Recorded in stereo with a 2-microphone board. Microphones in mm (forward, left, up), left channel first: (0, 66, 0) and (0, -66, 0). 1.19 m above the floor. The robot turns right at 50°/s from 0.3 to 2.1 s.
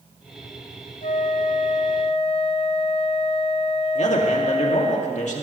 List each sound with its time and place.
1.0 s a flute: 75° left, 1.3 m; by 5.0 s 130° left, 1.3 m
4.0 s a man speaking: 65° left (ahead or behind), 2.5 m